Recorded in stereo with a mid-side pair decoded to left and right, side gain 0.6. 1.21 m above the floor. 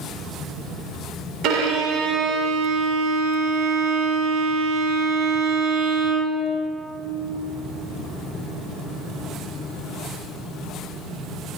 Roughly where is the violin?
Ahead right.